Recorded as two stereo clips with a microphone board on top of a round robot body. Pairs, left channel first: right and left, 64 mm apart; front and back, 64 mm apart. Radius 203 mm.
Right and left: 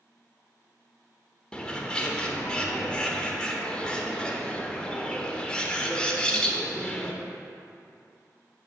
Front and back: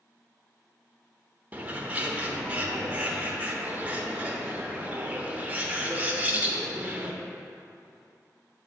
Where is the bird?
150° right, 1.1 m.